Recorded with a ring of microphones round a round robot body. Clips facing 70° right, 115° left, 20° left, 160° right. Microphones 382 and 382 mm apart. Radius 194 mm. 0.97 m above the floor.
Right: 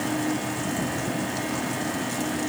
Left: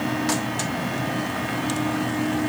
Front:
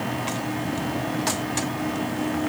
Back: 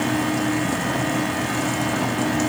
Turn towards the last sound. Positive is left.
No sound to turn to.